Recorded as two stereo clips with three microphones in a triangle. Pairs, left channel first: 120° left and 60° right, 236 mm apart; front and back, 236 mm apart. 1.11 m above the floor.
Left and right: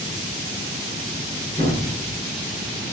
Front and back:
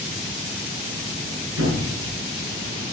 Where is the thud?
175° right, 7 m.